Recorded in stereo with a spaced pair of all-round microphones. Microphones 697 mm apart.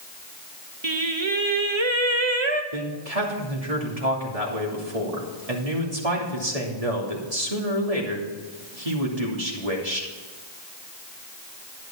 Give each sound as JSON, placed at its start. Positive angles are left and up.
{"t": 0.8, "sound": "singing", "side_deg": -40, "distance_m": 1.0}
{"t": 2.7, "sound": "a man speaking", "side_deg": -55, "distance_m": 3.0}